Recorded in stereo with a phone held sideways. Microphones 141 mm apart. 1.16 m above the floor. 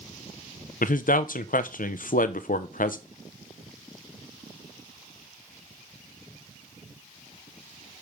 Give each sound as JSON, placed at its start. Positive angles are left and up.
{"t": 0.8, "sound": "a man speaking", "side_deg": 70, "distance_m": 0.5}